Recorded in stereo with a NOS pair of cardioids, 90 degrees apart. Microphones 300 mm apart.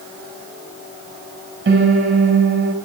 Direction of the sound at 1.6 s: 45° right.